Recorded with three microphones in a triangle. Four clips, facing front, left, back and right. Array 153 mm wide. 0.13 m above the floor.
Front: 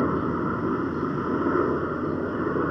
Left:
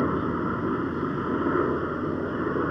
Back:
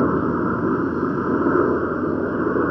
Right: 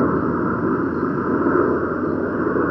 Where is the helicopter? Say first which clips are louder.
Right 7 dB, back 5 dB; 125° right.